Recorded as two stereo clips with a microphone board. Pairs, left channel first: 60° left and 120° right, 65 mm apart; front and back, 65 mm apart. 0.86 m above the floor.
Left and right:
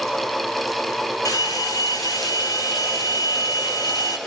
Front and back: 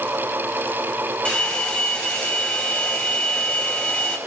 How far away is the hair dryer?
About 6 m.